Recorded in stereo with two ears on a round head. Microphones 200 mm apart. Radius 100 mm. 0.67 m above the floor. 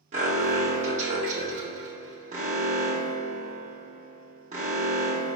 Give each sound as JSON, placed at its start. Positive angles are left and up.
{"t": 0.1, "sound": "an alarm", "side_deg": -35, "distance_m": 1.2}